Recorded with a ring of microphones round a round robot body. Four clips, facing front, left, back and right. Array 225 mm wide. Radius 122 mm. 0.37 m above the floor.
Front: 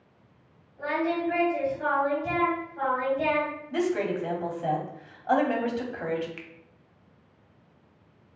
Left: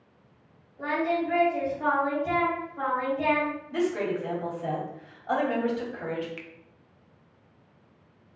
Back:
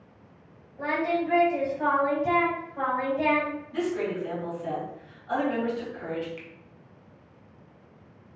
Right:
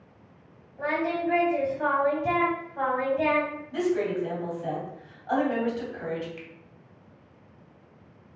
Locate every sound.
0.8 s singing: 125° right, 2.5 m
3.7 s a woman speaking: 20° left, 1.9 m
6.4 s a finger snap: 45° left, 0.8 m